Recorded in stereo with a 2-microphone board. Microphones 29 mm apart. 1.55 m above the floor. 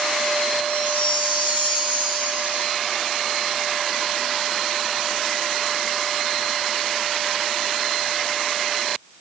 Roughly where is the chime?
Right.